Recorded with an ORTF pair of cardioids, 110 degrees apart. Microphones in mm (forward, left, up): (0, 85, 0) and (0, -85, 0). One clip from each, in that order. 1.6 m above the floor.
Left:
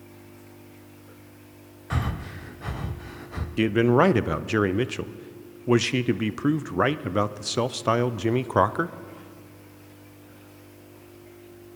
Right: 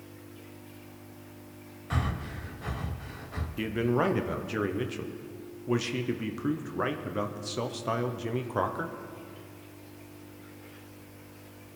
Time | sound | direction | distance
1.9 | breathing | 15° left | 0.8 m
3.6 | a man speaking | 40° left | 0.5 m